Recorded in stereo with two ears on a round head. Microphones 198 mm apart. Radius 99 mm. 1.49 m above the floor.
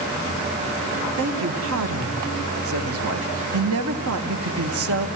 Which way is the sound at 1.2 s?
70° right (ahead or behind).